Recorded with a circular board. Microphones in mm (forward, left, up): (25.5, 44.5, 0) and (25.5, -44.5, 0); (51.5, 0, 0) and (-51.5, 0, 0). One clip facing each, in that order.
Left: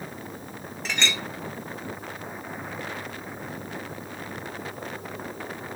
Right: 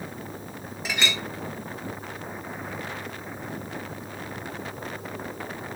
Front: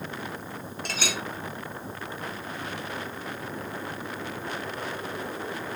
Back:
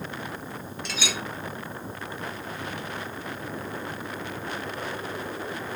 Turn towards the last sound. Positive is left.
turn(degrees=-5)